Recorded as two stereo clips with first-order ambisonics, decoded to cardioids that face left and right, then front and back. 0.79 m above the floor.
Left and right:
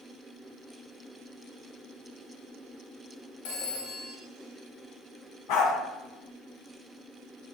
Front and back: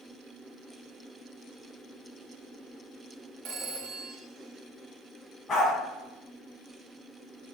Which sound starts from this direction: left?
A dog barking, at 5.5 s.